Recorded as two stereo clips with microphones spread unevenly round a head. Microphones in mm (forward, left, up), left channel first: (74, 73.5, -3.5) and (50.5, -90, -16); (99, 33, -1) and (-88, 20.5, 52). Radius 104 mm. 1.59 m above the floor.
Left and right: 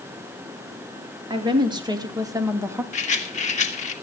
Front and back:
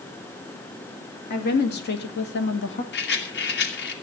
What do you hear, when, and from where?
1.3 s a woman speaking: 35° right, 3 m; by 2.8 s 25° right, 1.8 m
2.9 s a rattle: 40° left, 2.5 m